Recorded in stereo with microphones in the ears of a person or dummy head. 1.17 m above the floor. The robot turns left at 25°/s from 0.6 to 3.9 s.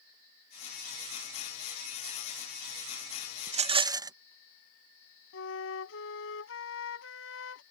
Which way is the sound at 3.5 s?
35° right (ahead or behind).